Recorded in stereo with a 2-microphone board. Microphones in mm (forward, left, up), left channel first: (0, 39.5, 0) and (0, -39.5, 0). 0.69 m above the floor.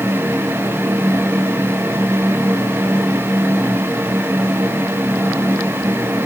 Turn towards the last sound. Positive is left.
No sound to turn to.